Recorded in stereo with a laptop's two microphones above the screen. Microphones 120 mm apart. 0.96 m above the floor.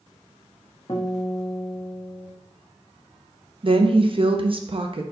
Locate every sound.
0.9 s a guitar: 35° left (ahead or behind), 1.0 m
3.6 s a woman speaking: 45° right (ahead or behind), 0.6 m